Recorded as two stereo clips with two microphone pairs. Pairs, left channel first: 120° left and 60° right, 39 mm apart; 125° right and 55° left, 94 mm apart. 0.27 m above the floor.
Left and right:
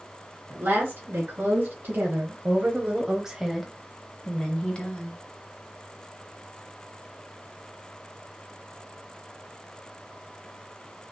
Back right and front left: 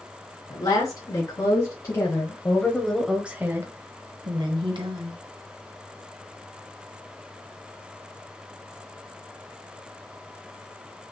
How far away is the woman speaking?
About 2 m.